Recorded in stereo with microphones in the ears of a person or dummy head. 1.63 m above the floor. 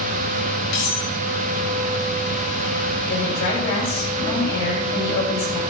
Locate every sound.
0.7 s cutlery clinking: 70° left (ahead or behind), 4.5 m
3.1 s a woman speaking: 70° left (ahead or behind), 6.5 m